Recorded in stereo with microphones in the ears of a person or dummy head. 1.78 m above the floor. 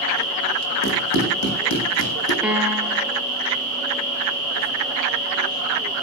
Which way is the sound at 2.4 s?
Centre (ahead or behind).